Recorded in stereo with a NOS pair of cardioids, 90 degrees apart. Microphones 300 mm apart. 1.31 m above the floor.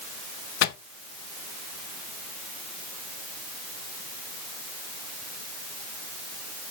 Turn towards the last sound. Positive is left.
turn(degrees=60)